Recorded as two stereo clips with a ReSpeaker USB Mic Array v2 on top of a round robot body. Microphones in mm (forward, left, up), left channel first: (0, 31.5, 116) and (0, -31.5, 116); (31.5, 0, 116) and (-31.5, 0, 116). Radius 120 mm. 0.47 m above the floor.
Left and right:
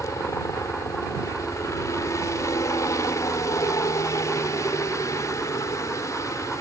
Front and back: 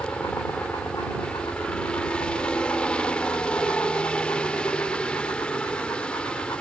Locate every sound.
0.0 s a helicopter: 70° left